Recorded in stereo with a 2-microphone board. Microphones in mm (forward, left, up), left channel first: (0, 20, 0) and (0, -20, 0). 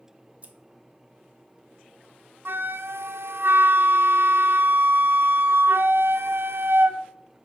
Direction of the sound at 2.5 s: 75° right (ahead or behind).